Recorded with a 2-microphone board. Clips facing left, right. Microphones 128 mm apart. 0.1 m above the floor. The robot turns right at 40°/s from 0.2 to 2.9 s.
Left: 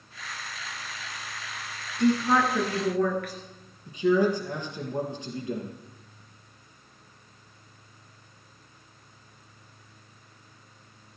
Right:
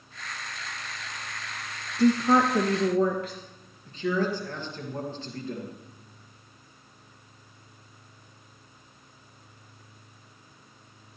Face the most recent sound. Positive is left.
turn(degrees=15)  # may be behind; listen again after turning